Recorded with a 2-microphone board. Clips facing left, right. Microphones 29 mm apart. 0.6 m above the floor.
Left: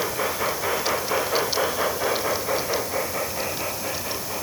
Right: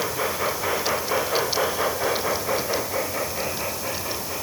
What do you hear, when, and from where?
Only background noise.